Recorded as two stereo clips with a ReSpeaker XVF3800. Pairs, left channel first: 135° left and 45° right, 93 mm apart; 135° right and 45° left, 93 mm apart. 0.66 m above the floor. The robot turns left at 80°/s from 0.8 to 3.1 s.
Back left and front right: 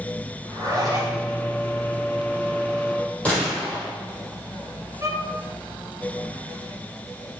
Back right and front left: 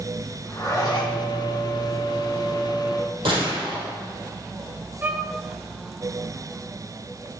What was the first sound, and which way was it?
A zipper, 90° right.